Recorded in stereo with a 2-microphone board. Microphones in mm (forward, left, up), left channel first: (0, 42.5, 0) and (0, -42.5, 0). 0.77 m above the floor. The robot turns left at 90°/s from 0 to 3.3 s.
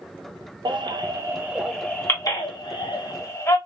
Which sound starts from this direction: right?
A baby crying, at 0.7 s.